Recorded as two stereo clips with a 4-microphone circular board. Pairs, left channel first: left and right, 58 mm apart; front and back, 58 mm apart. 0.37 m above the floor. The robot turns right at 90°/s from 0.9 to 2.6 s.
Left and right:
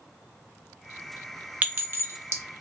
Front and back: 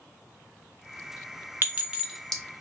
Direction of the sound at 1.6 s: 145° right.